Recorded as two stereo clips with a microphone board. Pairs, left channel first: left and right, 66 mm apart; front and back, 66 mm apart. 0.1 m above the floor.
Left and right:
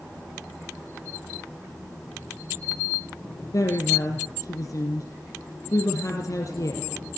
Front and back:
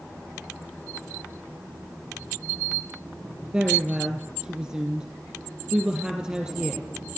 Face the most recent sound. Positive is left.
turn(degrees=105)